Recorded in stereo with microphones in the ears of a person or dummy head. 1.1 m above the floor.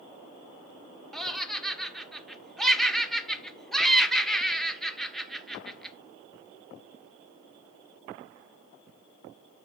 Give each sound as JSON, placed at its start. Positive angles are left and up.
{"t": 1.1, "sound": "laughter", "side_deg": 5, "distance_m": 1.1}